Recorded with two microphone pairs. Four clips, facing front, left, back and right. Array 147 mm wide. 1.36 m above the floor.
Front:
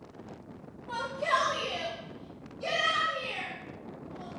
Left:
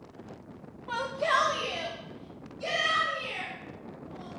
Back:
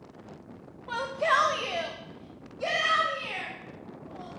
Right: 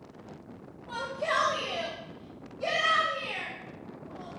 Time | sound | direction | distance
0.9 | a shout | 135° left | 1.0 m